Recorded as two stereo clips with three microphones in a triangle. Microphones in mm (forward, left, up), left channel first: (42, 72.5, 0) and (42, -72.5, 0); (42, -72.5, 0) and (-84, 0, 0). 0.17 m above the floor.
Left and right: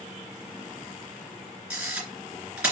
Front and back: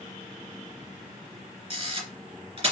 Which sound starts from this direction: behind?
A camera shutter, at 1.7 s.